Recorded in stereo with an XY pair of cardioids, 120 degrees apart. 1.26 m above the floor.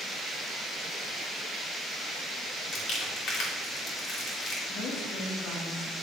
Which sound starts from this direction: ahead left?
Crumpling, at 2.7 s.